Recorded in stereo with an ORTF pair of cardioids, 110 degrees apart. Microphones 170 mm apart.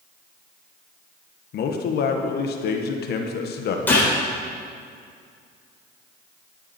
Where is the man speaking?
60° left, 1.4 m.